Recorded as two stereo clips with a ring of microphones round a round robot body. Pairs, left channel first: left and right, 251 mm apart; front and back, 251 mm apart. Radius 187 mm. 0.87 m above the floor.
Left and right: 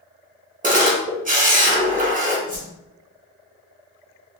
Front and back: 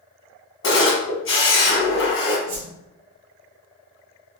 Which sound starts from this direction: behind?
A whoosh, at 2.5 s.